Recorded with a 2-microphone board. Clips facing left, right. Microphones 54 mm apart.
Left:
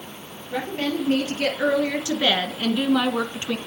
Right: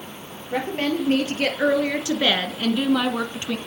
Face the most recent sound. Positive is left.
turn(degrees=25)  # may be behind; listen again after turning